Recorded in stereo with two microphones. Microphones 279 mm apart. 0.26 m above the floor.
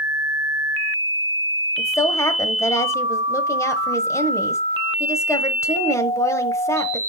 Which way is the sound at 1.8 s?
10° left (ahead or behind).